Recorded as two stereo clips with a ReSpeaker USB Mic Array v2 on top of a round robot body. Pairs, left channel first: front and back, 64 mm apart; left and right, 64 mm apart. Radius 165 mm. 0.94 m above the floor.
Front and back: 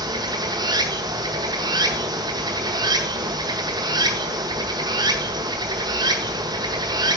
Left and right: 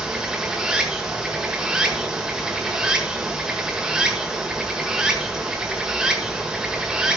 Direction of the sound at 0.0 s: 170° right.